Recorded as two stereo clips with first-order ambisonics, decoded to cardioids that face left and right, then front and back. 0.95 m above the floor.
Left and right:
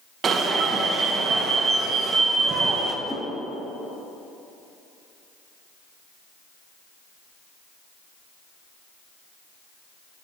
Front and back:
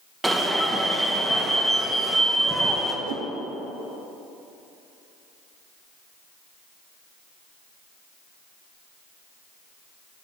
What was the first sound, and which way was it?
An alarm, 105° right.